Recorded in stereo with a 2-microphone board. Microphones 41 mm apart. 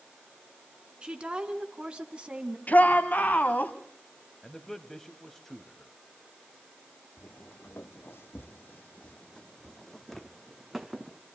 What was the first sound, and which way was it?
A woman speaking, 25° right (ahead or behind).